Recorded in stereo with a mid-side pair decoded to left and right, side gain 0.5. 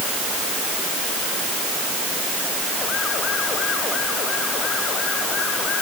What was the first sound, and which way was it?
Only background noise.